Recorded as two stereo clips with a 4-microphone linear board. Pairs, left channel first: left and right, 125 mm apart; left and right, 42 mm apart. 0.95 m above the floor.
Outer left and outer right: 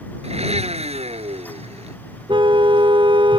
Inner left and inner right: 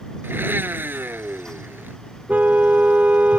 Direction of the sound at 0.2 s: 60° right (ahead or behind).